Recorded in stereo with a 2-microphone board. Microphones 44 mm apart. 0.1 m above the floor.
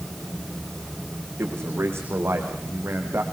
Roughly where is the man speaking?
Right.